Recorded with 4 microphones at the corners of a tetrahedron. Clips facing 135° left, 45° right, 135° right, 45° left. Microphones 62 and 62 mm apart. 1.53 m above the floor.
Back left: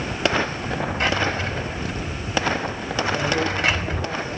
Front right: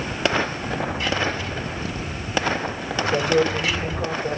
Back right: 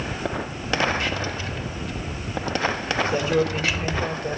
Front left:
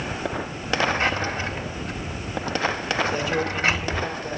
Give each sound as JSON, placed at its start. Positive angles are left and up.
{"t": 1.0, "sound": "a drawer", "azimuth_deg": 100, "distance_m": 3.5}
{"t": 3.0, "sound": "a man speaking", "azimuth_deg": -80, "distance_m": 8.5}